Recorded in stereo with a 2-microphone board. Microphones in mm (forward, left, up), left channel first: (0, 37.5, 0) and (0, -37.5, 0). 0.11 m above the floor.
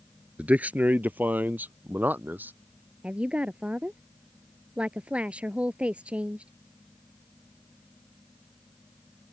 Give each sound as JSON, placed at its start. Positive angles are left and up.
{"t": 0.4, "sound": "a man speaking", "side_deg": -20}
{"t": 3.0, "sound": "a woman speaking", "side_deg": -15}